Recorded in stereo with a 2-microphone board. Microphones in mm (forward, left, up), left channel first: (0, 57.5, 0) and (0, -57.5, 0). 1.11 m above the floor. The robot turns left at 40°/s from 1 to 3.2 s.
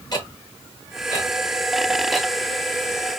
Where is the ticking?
35° left (ahead or behind), 1.5 m; by 2.3 s 10° right (ahead or behind), 1.5 m.